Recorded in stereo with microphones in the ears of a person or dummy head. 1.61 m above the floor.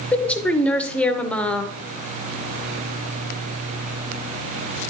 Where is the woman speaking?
5° left (ahead or behind), 0.8 m.